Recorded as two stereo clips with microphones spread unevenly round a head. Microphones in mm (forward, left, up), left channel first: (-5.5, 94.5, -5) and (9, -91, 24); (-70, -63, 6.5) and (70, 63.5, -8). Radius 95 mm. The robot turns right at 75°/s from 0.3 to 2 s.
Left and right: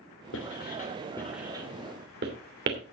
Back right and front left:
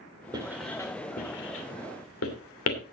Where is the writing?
110° left, 3 m; by 2.9 s 125° right, 3 m.